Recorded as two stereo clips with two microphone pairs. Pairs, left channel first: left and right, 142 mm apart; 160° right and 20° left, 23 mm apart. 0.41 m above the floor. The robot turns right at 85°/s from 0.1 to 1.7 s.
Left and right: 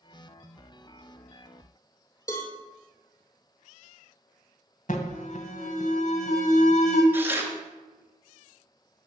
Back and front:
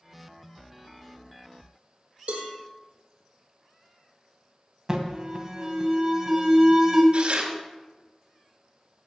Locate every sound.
2.3 s a cowbell: 25° left, 3.5 m
4.9 s an alarm: 80° left, 1.9 m
7.1 s tearing paper: 15° right, 3 m